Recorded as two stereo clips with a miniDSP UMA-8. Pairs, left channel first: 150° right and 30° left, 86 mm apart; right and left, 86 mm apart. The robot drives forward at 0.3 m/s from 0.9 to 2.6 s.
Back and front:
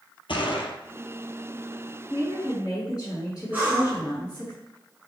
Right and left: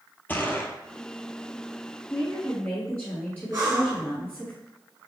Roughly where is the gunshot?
Behind.